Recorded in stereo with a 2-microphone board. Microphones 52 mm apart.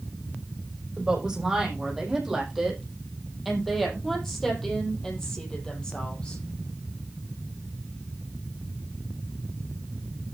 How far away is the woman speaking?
About 6.5 m.